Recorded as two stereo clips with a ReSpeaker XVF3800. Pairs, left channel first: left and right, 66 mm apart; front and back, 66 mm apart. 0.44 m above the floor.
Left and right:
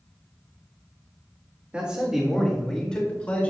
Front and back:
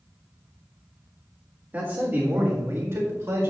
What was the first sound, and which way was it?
A man speaking, 145° right.